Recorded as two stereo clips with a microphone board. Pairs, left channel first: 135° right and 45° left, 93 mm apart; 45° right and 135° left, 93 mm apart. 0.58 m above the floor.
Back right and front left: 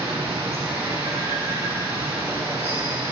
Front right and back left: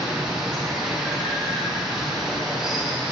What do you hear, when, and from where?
0.0 s running water: 50° left, 4 m